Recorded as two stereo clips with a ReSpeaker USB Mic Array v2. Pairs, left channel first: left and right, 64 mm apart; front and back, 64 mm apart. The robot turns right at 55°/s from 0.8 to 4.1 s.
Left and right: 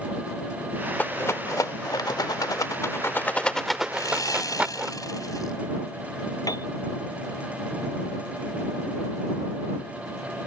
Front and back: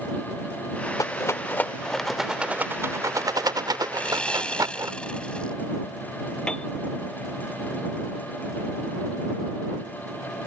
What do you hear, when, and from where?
1.0 s a rattle: 30° left; by 4.9 s 160° right
3.9 s sawing: 65° left; by 5.5 s 75° left
6.5 s a piano: 75° left